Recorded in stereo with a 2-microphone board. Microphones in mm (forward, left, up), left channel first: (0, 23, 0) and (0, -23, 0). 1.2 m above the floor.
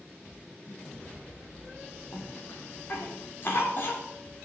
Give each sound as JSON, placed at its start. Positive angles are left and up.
{"t": 0.7, "sound": "a snare drum", "side_deg": 60, "distance_m": 8.0}
{"t": 2.1, "sound": "a cough", "side_deg": 50, "distance_m": 4.5}